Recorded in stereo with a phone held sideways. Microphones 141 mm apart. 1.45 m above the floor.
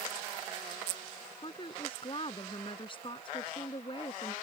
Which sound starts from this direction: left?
A woman speaking, at 1.4 s.